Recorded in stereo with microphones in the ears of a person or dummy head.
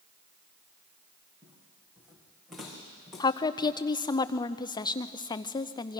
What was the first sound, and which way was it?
Footsteps, 5° right (ahead or behind).